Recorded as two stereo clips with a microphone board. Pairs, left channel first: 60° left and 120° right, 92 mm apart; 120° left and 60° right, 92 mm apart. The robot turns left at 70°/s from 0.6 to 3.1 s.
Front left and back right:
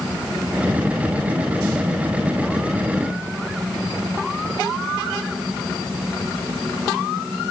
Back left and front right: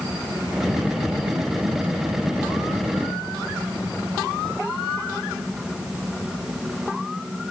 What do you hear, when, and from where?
Only background noise.